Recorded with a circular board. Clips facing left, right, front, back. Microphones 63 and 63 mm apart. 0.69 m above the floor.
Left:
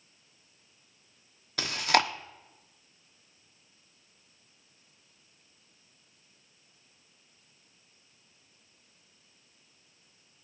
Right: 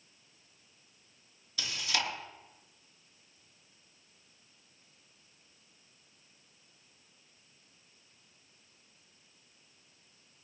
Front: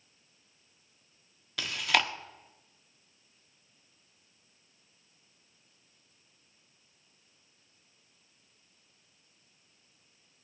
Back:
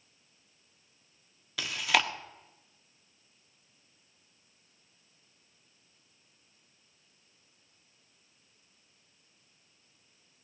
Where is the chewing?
95° left, 1.1 m.